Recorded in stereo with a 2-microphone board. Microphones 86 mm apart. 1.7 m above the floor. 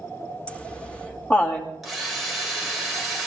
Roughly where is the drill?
Centre.